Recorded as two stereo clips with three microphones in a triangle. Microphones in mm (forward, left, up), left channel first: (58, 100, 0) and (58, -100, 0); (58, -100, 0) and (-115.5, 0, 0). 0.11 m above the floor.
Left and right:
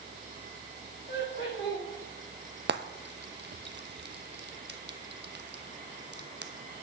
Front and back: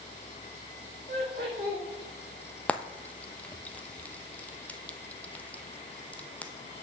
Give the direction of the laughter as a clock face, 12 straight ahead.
8 o'clock.